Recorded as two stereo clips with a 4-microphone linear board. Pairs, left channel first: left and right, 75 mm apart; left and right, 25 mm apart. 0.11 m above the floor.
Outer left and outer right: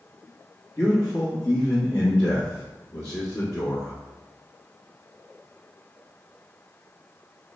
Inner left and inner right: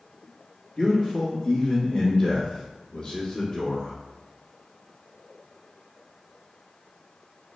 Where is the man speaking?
45° left (ahead or behind), 2.5 m.